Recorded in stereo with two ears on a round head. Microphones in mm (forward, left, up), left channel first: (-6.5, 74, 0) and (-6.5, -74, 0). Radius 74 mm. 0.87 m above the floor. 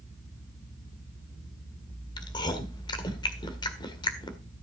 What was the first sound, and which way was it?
Chewing, 25° left (ahead or behind).